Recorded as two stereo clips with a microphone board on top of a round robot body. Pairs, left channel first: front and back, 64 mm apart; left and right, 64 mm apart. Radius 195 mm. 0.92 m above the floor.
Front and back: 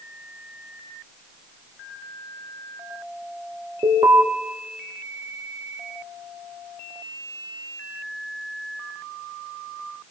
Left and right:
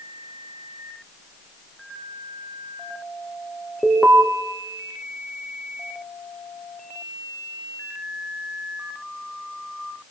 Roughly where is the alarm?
Behind.